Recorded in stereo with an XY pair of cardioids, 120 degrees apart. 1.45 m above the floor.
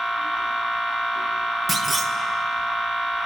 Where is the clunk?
25° right, 1.6 m.